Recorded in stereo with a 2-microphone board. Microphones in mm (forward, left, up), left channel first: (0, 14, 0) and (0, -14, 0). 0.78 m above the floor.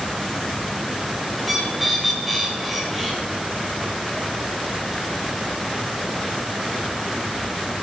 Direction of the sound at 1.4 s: 5° left (ahead or behind).